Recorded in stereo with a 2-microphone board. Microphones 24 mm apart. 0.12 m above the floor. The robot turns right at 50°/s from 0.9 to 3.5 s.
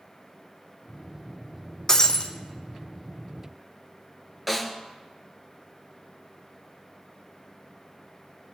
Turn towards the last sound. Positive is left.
turn(degrees=0)  # may be behind; listen again after turning